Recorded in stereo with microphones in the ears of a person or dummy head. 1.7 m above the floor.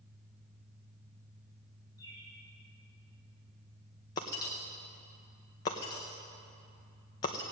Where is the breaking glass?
20° left (ahead or behind), 0.8 m.